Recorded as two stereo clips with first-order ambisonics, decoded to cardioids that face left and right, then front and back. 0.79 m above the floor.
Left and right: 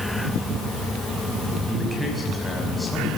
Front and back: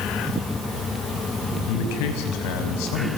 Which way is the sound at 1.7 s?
5° left.